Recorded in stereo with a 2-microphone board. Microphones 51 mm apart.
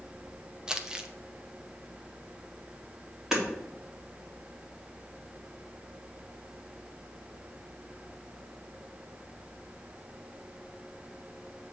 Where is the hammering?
10° right (ahead or behind), 2 m.